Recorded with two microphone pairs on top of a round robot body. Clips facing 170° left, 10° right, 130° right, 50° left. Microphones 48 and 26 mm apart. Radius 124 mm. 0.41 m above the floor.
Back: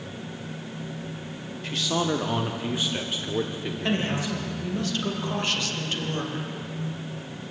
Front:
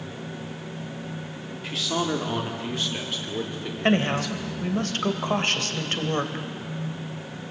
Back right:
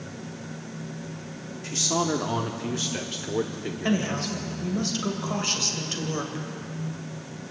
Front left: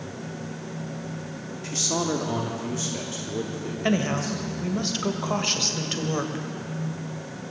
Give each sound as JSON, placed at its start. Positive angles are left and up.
{"t": 1.6, "sound": "a man speaking", "azimuth_deg": -60, "distance_m": 1.6}
{"t": 3.8, "sound": "a woman speaking", "azimuth_deg": -30, "distance_m": 2.5}